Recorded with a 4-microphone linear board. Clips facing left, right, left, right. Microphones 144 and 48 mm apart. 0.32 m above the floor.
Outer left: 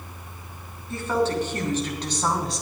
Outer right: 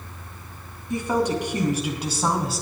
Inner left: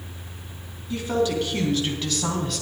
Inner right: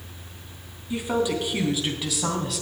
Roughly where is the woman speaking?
Centre.